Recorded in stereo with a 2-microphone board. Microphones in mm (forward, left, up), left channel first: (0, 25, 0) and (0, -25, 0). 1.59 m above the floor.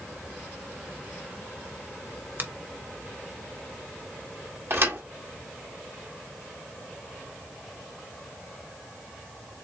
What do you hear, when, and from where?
2.4 s a finger snap: 40° right (ahead or behind), 0.8 m
4.7 s a thud: 50° right (ahead or behind), 1.7 m